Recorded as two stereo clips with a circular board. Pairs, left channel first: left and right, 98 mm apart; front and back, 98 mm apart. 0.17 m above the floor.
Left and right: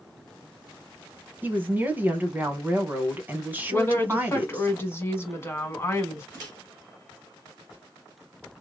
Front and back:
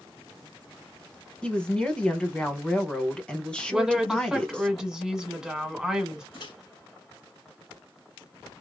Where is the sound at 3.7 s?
105° left, 1.4 m.